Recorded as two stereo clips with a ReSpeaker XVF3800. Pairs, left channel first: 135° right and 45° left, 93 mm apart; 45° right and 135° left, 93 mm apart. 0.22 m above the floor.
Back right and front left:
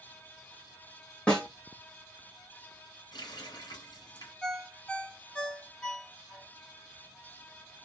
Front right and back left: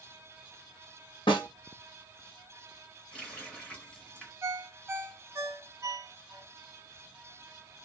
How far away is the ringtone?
About 0.7 m.